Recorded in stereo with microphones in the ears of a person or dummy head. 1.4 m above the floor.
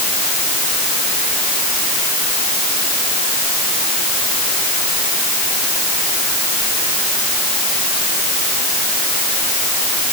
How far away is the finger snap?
No finger snap in this recording.